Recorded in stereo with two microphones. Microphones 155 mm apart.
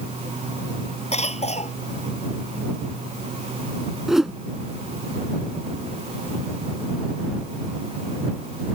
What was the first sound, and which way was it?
A cough, 45° left (ahead or behind).